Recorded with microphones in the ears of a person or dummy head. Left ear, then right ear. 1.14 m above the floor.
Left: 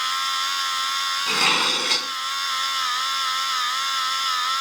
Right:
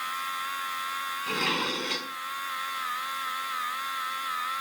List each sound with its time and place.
0.0 s a machine running: 85° left
1.3 s dishes clattering: 35° left (ahead or behind)